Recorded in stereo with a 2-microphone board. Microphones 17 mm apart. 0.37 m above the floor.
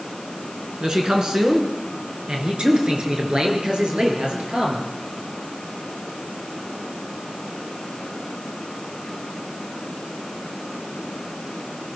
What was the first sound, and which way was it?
A man speaking, 50° right (ahead or behind).